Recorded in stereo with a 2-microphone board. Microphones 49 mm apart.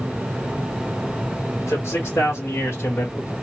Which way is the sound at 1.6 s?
75° left (ahead or behind).